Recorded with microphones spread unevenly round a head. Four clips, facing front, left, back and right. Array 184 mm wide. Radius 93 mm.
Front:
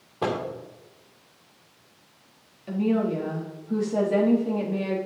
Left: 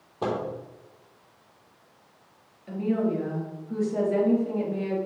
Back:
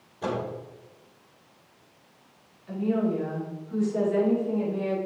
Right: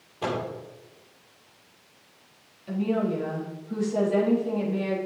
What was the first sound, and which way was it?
A microwave, 25° left.